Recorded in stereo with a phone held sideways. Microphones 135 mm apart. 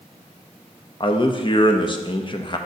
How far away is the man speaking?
About 0.6 m.